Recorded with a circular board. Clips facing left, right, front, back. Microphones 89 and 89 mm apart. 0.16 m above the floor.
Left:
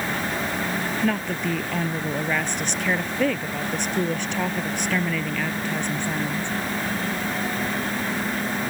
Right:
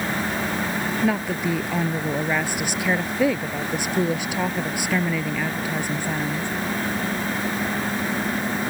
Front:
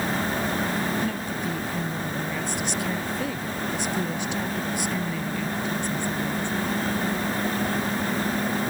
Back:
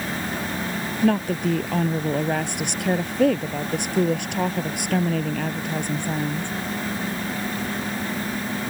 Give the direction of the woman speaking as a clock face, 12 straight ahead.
6 o'clock.